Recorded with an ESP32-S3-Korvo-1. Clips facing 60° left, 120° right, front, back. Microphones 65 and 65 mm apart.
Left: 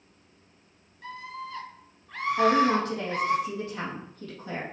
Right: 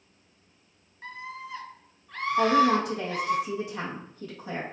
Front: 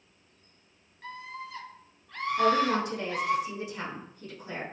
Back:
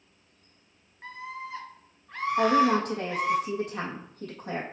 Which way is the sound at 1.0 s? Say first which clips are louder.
Left 1 dB, back 2 dB; 140° right.